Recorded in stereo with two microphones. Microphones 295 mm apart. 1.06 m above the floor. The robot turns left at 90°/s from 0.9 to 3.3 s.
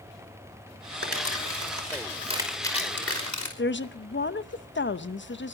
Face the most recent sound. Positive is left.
turn(degrees=40)  # may be behind; listen again after turning